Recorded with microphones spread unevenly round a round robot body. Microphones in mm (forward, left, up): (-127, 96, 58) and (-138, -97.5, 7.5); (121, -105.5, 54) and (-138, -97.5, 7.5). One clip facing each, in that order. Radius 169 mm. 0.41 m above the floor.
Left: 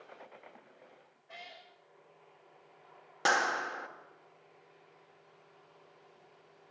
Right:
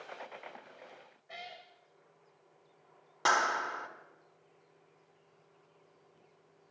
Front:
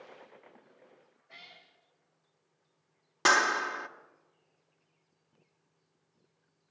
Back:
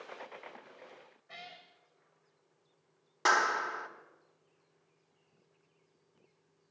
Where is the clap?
10° left, 1.1 m.